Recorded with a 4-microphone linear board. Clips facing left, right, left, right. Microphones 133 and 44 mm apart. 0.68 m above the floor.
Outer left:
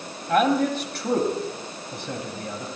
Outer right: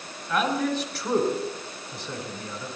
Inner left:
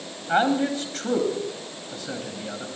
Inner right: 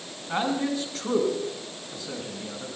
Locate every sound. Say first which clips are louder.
0.3 s a man speaking: outer left 5 dB, inner left 5 dB; 60° left (ahead or behind), 2 m